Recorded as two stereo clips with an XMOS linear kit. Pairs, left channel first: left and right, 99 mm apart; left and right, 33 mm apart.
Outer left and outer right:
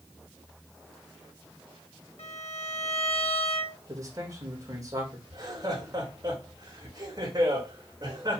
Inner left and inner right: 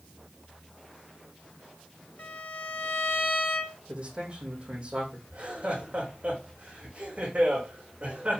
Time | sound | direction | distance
2.2 | a violin | 80° left | 1.5 m
3.9 | a man speaking | 35° right (ahead or behind) | 4.5 m
5.3 | laughter | 40° right (ahead or behind) | 5 m